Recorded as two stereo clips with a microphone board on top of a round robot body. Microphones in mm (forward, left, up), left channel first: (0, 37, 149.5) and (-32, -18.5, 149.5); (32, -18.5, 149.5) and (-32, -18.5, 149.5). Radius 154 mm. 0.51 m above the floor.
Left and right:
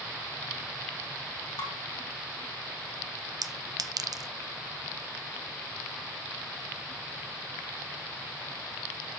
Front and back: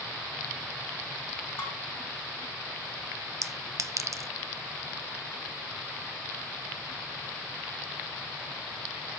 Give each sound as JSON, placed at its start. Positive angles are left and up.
{"t": 1.6, "sound": "dishes clattering", "azimuth_deg": 55, "distance_m": 3.5}
{"t": 3.4, "sound": "a clink", "azimuth_deg": -140, "distance_m": 0.6}